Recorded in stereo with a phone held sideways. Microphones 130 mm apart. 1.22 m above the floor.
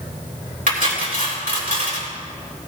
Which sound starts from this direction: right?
Cutlery clinking, at 0.7 s.